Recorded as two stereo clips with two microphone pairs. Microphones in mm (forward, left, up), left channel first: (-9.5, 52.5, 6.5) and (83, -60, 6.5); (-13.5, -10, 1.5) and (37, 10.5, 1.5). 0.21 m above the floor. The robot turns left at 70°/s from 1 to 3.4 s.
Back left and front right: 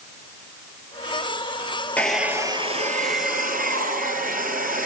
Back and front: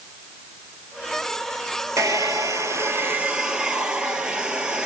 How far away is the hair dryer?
About 1.4 m.